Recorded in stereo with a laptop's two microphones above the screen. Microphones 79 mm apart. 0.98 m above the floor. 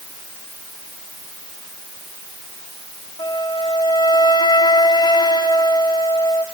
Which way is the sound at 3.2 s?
60° left (ahead or behind).